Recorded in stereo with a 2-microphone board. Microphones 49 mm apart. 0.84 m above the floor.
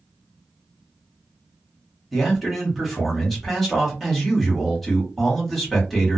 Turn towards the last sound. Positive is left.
turn(degrees=0)  # may be behind; listen again after turning